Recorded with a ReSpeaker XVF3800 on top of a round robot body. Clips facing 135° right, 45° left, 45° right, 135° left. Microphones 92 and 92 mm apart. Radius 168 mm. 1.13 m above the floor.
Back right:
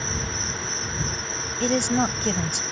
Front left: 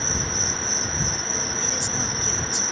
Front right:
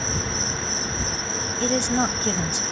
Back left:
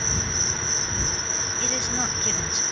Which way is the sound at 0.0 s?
10° right.